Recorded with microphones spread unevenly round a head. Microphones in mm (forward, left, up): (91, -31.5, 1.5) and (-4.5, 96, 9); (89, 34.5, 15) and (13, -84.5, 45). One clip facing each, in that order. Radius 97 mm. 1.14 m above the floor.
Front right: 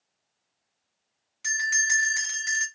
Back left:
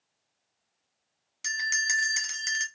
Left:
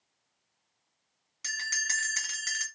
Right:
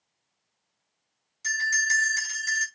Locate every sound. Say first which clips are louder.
1.4 s a bell: front right 3 dB, right 9 dB; 100° left, 1.5 m